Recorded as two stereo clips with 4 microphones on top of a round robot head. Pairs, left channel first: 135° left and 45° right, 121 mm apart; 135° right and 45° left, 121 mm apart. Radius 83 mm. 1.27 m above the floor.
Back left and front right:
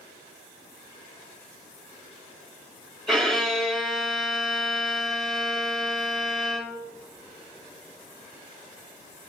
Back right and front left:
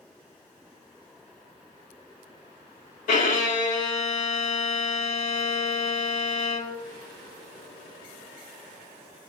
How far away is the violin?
About 2.5 m.